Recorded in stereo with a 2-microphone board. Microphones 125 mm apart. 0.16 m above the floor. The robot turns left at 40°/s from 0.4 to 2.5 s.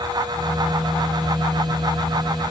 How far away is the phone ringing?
I don't hear a phone ringing.